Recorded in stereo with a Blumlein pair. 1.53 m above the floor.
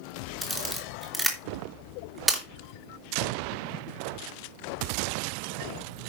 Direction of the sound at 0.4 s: 10° right.